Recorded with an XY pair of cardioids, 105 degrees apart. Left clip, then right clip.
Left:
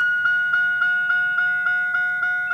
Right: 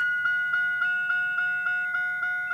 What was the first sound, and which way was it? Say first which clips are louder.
A vehicle: left 6 dB; 40° left.